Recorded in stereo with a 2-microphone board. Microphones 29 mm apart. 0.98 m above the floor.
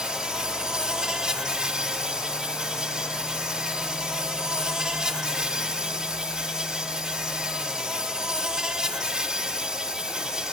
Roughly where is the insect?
Right.